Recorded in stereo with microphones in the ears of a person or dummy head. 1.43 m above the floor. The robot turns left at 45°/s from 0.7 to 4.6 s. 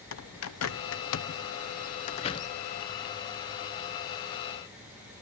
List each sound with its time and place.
0.1 s a bird: 70° left (ahead or behind), 0.8 m; by 2.5 s 20° left (ahead or behind), 0.8 m